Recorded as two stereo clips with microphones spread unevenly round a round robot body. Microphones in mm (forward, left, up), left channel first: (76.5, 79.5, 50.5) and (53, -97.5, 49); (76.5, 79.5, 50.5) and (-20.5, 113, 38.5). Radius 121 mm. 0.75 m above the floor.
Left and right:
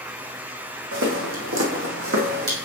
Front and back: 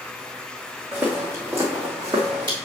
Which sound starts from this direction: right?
Footsteps, at 0.9 s.